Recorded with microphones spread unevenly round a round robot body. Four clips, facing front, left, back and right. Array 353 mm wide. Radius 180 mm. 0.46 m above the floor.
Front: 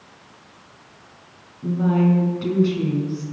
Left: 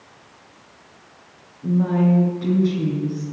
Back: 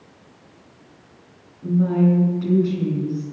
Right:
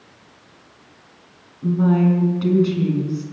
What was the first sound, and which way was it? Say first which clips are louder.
A woman speaking: right 2 dB, back 1 dB; 65° right.